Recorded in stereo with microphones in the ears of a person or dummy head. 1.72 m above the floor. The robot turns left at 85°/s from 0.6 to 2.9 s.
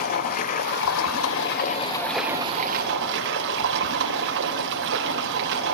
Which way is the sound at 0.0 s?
130° left.